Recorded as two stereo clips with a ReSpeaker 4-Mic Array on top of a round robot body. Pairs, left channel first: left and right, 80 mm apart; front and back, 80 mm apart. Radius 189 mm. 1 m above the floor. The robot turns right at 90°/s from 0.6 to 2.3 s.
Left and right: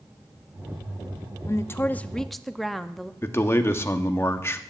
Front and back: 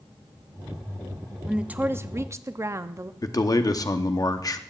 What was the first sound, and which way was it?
A woman speaking, 100° left.